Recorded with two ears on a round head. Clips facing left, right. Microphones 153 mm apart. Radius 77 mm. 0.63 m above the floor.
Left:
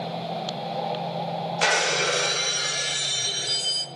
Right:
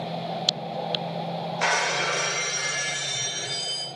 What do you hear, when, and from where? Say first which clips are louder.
1.6 s breaking glass: left 2 dB; 40° left (ahead or behind), 0.8 m